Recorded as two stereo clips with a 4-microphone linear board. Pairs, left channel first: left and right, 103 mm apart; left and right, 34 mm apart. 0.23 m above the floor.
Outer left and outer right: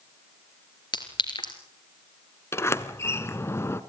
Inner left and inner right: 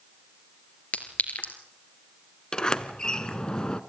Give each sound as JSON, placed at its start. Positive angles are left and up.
{"t": 0.9, "sound": "a clink", "side_deg": 50, "distance_m": 2.5}
{"t": 2.5, "sound": "a sliding door", "side_deg": 25, "distance_m": 0.9}